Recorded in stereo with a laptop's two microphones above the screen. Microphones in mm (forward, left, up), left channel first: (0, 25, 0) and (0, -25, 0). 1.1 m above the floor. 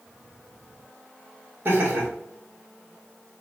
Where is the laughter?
50° right (ahead or behind), 1.9 m.